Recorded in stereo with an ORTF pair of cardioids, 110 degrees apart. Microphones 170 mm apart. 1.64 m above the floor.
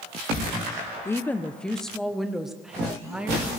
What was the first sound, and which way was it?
A woman speaking, 15° left.